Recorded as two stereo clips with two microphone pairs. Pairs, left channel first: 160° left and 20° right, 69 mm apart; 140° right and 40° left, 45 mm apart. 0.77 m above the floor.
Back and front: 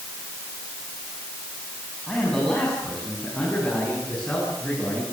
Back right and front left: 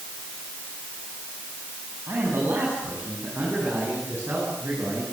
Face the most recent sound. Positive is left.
turn(degrees=85)